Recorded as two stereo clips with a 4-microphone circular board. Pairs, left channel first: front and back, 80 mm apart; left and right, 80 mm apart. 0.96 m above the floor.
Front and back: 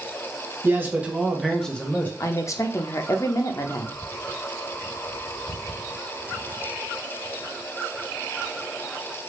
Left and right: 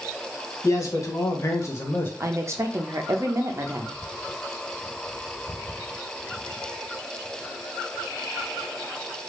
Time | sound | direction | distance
0.6 | a man speaking | 125° left | 0.9 m
2.2 | a woman speaking | 45° right | 0.5 m